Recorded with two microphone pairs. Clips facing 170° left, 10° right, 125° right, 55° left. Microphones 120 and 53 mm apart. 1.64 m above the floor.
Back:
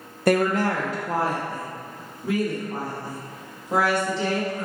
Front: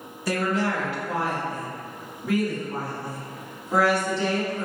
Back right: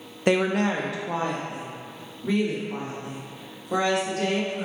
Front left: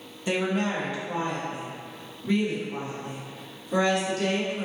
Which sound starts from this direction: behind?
A woman speaking, at 0.3 s.